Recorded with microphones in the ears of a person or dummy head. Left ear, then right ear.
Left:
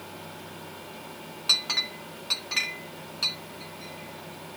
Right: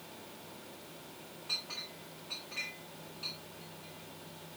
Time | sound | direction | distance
1.5 | a clink | 65° left (ahead or behind) | 0.8 m